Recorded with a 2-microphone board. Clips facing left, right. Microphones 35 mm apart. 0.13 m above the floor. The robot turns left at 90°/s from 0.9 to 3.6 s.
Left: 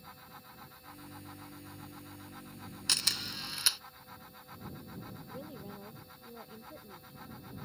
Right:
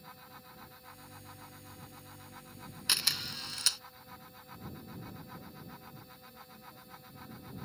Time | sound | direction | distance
2.9 | a camera shutter | 15° right (ahead or behind) | ?
5.3 | a woman speaking | 60° left (ahead or behind) | ?